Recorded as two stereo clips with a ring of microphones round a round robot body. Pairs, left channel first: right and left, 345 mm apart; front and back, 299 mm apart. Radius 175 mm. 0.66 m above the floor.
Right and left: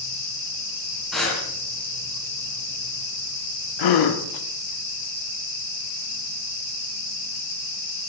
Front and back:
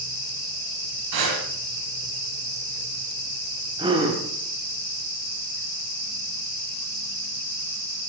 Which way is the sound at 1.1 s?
Straight behind.